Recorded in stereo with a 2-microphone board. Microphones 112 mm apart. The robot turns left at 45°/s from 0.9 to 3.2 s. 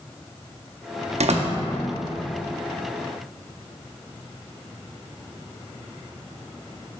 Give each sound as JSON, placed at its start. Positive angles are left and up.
{"t": 1.2, "sound": "a door slam", "side_deg": -75, "distance_m": 0.6}